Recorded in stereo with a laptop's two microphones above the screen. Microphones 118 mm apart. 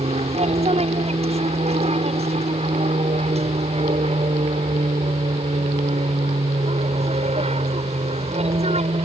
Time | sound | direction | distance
0.0 | an aircraft | 60° right (ahead or behind) | ?